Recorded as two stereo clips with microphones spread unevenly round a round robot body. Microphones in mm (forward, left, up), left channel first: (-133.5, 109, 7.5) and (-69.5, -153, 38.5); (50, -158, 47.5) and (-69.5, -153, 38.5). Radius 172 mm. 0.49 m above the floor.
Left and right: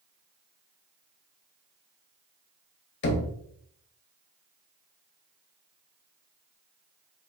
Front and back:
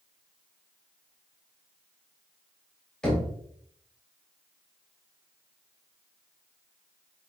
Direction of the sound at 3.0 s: 85° left.